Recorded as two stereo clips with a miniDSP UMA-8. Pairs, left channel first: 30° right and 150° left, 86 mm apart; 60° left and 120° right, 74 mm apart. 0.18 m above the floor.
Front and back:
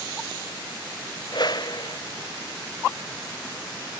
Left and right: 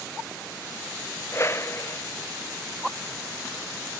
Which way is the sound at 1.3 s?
5° left.